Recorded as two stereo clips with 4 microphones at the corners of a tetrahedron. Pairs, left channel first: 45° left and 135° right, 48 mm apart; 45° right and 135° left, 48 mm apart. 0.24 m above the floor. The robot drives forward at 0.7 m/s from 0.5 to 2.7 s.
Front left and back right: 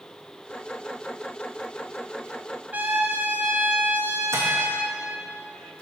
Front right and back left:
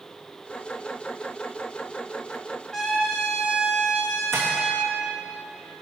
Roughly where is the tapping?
Behind right.